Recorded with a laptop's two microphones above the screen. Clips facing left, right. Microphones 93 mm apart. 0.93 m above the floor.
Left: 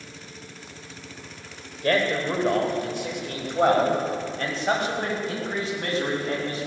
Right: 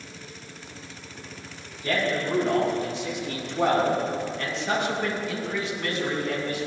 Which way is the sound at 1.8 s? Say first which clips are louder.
Left 3 dB; 60° left (ahead or behind).